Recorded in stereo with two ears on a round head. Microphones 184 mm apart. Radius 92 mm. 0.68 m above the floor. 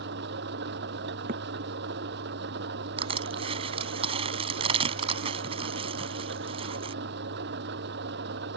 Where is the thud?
40° right (ahead or behind).